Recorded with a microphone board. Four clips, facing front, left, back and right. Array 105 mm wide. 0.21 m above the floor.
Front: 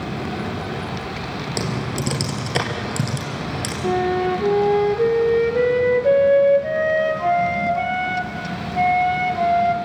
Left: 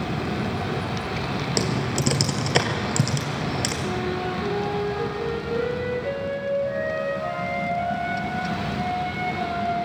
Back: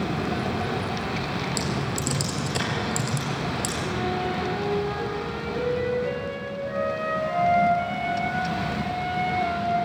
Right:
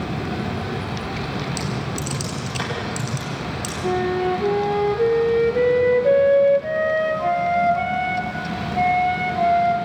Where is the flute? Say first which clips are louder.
Right 10 dB, front 10 dB; 35° right, 1.5 m.